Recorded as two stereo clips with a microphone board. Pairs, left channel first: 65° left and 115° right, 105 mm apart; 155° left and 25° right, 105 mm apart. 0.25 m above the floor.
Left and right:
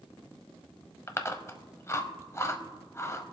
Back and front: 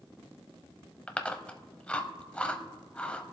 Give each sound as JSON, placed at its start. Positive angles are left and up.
{"t": 1.1, "sound": "chewing", "azimuth_deg": 90, "distance_m": 0.8}